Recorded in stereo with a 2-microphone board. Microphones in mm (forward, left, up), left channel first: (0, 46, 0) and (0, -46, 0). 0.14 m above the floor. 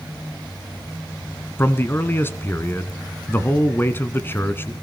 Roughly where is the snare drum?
I don't hear a snare drum.